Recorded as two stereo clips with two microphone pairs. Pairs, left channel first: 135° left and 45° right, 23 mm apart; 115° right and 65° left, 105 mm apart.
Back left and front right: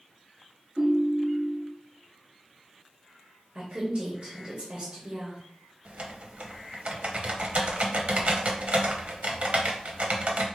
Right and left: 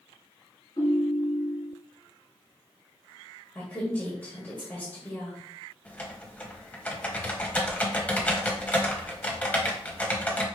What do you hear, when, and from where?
0.8 s a ringtone: 75° right, 2 m
3.5 s a woman speaking: 45° right, 1.6 m
5.8 s typing on a keyboard: 35° right, 0.9 m